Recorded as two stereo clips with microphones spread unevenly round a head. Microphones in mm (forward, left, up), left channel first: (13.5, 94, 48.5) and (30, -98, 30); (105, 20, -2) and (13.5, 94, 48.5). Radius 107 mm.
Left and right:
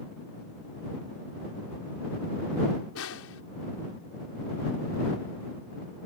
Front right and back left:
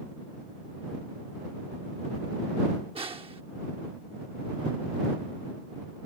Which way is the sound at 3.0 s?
95° left.